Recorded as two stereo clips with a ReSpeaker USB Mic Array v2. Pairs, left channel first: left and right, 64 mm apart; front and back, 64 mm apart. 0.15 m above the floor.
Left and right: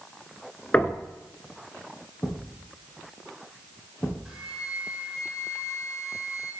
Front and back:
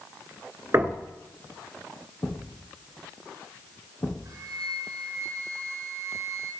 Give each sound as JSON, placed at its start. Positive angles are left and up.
{"t": 0.7, "sound": "knocking", "azimuth_deg": 150, "distance_m": 1.4}
{"t": 2.2, "sound": "a thud", "azimuth_deg": 30, "distance_m": 3.5}
{"t": 4.2, "sound": "a flute", "azimuth_deg": -170, "distance_m": 5.0}